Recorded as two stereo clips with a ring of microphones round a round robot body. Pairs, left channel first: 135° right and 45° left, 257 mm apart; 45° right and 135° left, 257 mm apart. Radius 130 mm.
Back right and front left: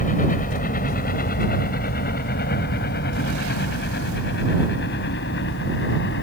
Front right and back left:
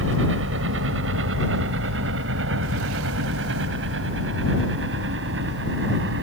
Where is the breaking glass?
No breaking glass in this recording.